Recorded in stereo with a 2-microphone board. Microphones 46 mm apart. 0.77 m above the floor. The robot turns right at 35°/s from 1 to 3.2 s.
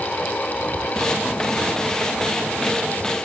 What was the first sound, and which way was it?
Only background noise.